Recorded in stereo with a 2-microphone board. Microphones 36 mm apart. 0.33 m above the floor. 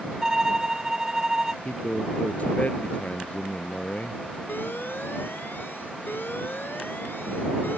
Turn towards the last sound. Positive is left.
turn(degrees=75)  # may be behind; listen again after turning